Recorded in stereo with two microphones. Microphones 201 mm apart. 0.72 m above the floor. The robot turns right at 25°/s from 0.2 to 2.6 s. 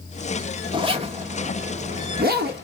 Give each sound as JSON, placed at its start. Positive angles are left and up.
{"t": 0.7, "sound": "a zipper", "side_deg": -25, "distance_m": 1.3}